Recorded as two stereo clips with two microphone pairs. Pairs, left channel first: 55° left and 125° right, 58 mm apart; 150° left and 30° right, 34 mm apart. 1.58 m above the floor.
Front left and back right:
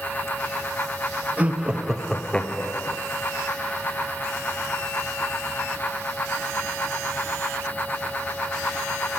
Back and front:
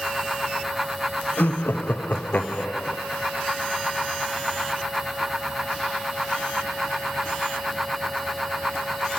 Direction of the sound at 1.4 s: 170° left.